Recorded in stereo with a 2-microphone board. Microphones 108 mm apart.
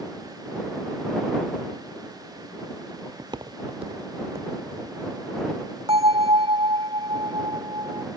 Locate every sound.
3.2 s footsteps: 35° right (ahead or behind); by 5.0 s 70° right (ahead or behind)
5.9 s a bell: 60° right (ahead or behind)